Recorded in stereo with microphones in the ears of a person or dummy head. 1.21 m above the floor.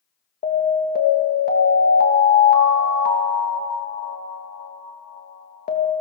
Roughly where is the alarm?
Left.